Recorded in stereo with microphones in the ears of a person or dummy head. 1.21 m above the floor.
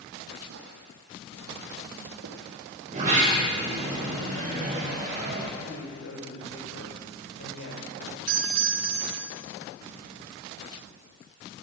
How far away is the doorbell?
About 2.5 m.